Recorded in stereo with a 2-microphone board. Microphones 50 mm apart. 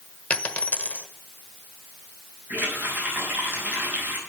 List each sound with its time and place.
0.3 s a dropped coin: 30° left (ahead or behind), 1.1 m
2.5 s a running tap: 40° right (ahead or behind), 6.5 m